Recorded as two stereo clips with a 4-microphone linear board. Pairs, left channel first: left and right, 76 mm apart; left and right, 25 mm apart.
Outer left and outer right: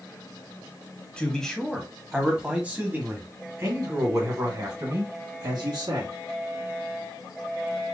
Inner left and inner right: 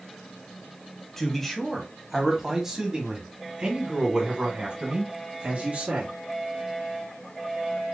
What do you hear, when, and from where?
1.2 s a man speaking: 15° left (ahead or behind), 1.5 m; by 6.1 s 55° right (ahead or behind), 2.5 m